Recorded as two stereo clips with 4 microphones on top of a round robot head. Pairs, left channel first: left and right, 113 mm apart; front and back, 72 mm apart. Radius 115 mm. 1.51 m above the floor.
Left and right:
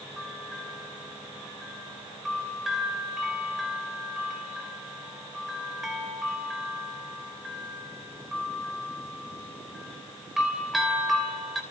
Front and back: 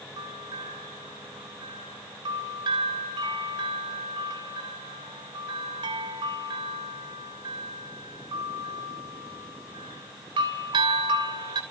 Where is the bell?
Straight behind, 3 m.